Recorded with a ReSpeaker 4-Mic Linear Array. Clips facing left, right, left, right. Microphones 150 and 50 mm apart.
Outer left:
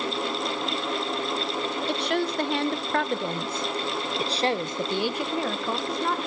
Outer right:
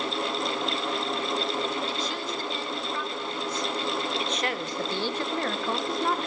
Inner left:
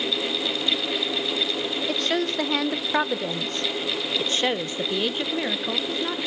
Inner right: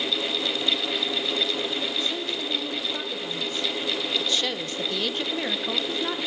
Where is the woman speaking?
65° left (ahead or behind), 1.3 m; by 6.2 s 5° right (ahead or behind), 1.4 m.